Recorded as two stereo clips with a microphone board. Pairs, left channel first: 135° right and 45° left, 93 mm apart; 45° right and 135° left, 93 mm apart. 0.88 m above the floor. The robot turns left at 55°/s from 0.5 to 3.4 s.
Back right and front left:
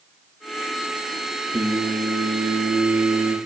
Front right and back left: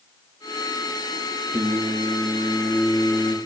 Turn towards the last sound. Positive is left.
turn(degrees=-10)